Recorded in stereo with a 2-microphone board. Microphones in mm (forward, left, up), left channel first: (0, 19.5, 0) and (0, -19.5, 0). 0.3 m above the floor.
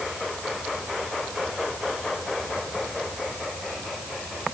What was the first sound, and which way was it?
Only background noise.